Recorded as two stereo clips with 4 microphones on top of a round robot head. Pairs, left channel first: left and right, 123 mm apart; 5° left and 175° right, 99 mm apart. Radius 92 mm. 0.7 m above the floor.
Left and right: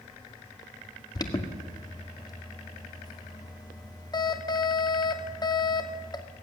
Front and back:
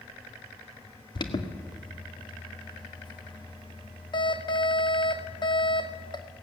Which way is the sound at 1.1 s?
35° left.